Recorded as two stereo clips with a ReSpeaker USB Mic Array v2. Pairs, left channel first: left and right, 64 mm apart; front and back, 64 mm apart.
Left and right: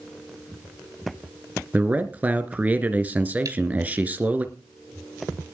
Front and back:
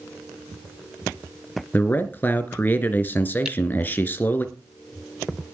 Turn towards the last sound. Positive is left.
turn(degrees=-100)